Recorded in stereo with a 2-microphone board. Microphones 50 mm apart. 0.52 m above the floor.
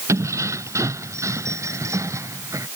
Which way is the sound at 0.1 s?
80° right.